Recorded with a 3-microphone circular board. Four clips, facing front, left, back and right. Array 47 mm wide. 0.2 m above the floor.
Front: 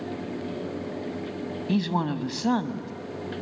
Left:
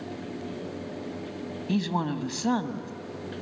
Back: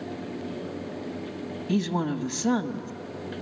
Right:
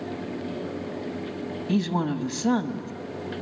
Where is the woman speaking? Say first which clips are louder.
Right 2 dB, even; 10° left, 1.1 m.